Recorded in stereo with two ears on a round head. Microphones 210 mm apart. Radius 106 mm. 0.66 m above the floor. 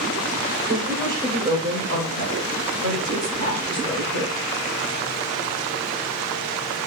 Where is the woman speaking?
10° right (ahead or behind), 2 m; by 4.5 s 50° right (ahead or behind), 3 m.